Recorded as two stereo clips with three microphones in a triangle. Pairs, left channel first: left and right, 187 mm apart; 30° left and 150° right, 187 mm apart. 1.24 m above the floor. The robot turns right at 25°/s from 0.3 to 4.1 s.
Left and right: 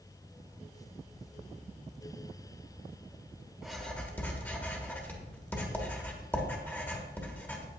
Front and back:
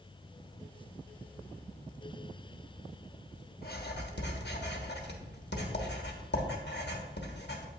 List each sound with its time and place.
3.6 s writing: straight ahead, 1.3 m; by 7.7 s 10° left, 1.3 m